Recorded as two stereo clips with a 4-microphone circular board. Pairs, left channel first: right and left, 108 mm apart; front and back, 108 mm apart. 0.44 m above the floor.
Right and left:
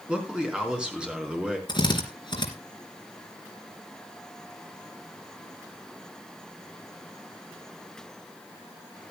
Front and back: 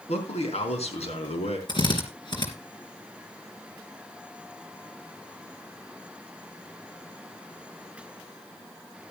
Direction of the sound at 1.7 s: 45° right.